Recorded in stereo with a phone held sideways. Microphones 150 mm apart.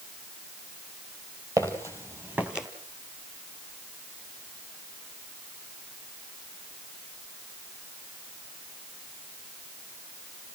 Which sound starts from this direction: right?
Footsteps, at 1.6 s.